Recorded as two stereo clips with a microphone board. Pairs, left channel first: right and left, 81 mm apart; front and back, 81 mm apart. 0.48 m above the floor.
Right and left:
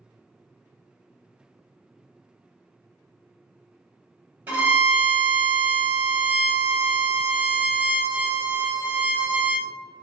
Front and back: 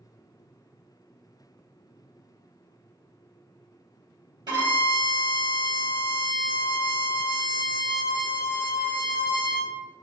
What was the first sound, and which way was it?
A violin, 155° left.